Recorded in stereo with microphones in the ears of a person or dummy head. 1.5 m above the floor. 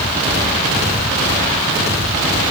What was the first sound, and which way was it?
Only background noise.